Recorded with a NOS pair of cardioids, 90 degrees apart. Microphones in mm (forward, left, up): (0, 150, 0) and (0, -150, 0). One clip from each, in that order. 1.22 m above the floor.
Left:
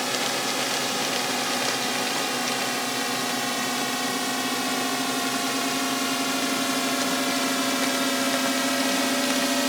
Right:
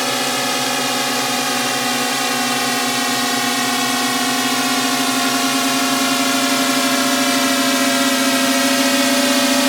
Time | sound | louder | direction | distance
0.0 | a drone | right 7 dB | 70° right | ?